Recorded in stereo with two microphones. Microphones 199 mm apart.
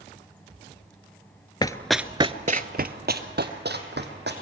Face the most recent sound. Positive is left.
turn(degrees=-60)  # may be behind; listen again after turning